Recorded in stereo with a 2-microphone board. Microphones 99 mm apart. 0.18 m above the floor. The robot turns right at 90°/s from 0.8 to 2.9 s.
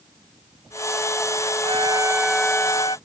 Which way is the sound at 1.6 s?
65° right.